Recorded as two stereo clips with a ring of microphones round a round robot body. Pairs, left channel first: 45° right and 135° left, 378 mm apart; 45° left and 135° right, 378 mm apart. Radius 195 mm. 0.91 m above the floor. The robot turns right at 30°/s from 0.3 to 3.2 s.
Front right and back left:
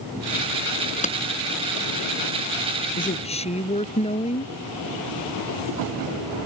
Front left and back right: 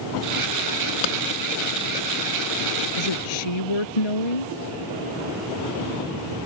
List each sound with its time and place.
1.0 s a clap: 25° left; by 1.2 s 30° left
3.0 s a woman speaking: 25° left; by 4.5 s 30° left